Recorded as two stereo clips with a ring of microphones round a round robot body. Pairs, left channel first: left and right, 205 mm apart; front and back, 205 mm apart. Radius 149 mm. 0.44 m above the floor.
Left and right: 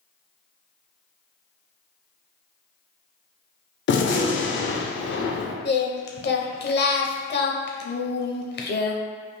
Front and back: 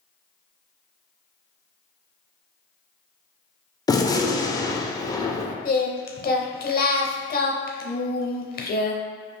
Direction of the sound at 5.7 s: 50° left.